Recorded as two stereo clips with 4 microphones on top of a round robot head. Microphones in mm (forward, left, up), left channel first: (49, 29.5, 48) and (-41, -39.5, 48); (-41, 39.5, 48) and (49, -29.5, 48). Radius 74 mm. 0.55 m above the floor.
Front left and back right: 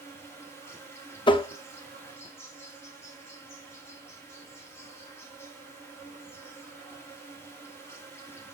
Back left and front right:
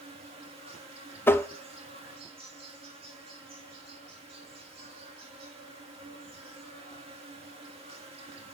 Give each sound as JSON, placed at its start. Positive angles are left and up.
{"t": 0.0, "sound": "an insect", "azimuth_deg": -25, "distance_m": 1.9}
{"t": 1.3, "sound": "tapping", "azimuth_deg": 75, "distance_m": 0.6}